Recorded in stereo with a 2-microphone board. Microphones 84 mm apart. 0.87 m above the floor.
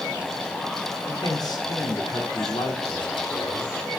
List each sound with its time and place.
1.1 s a man speaking: 50° left (ahead or behind), 3 m; by 3.8 s 75° left (ahead or behind), 3 m